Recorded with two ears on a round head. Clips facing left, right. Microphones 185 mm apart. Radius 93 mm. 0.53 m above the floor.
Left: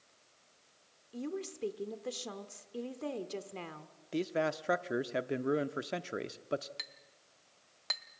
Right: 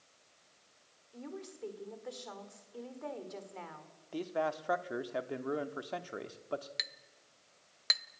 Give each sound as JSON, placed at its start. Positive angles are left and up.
{"t": 1.1, "sound": "a woman speaking", "side_deg": 40, "distance_m": 1.4}
{"t": 4.1, "sound": "a man speaking", "side_deg": 25, "distance_m": 0.7}
{"t": 6.8, "sound": "a clink", "side_deg": -20, "distance_m": 0.5}